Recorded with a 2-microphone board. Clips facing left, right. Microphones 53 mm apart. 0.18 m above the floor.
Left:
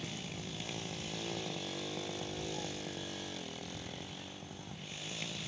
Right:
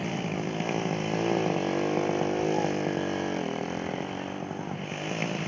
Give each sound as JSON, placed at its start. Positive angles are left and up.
{"t": 0.0, "sound": "a motorcycle", "side_deg": -45}